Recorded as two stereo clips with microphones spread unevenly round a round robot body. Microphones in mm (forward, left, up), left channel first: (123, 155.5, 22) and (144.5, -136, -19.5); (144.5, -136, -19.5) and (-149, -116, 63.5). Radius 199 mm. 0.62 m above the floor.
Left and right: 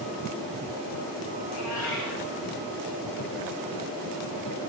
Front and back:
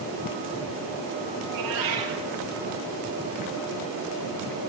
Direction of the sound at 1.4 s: 150° left.